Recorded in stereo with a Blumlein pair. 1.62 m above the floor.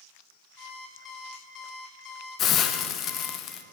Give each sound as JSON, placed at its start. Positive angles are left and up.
{"t": 0.6, "sound": "an alarm clock", "azimuth_deg": 25, "distance_m": 3.0}
{"t": 2.4, "sound": "a hiss", "azimuth_deg": 30, "distance_m": 0.9}